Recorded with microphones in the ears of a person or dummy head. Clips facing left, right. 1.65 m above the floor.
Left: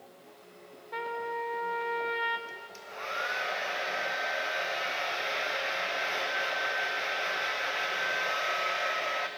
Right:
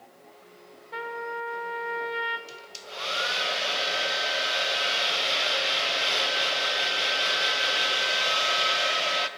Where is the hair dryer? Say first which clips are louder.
Right 2 dB; 50° right (ahead or behind), 1.0 m.